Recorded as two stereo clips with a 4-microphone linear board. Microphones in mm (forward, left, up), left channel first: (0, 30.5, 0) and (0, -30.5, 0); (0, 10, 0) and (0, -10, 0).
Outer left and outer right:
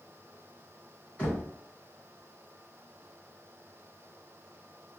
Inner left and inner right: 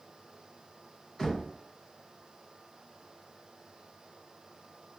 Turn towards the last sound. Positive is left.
turn(degrees=20)  # may be behind; listen again after turning